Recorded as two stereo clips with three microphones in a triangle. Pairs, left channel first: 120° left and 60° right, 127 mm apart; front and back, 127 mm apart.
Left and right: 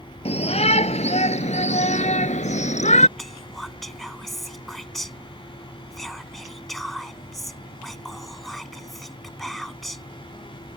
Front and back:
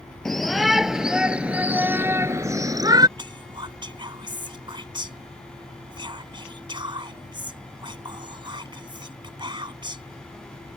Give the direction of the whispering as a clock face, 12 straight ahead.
5 o'clock.